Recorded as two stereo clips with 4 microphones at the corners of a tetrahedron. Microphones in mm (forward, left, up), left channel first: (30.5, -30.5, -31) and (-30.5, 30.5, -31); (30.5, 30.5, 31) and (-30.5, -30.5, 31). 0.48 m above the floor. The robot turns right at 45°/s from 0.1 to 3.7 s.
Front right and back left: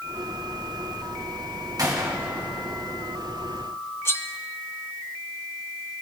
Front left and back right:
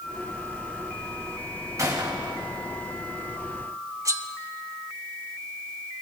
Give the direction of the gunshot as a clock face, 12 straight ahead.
6 o'clock.